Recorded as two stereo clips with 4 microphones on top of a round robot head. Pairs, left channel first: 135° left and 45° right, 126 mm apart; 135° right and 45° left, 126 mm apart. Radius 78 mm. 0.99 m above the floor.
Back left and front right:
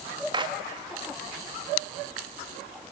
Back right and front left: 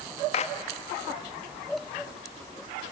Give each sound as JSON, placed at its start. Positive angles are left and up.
{"t": 0.3, "sound": "a clap", "azimuth_deg": -100, "distance_m": 1.5}